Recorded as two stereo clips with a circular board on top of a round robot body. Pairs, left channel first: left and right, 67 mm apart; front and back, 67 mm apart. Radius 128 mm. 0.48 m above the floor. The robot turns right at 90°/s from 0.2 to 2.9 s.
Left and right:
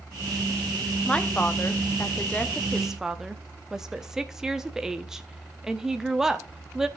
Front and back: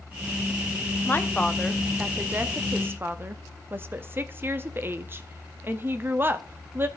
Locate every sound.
1.1 s a woman speaking: 25° left, 1.1 m; by 6.9 s 170° right, 1.1 m